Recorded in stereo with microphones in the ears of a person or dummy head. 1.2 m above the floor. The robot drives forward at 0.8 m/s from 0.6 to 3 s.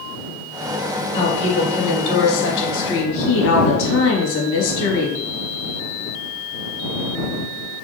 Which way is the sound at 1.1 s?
35° left (ahead or behind).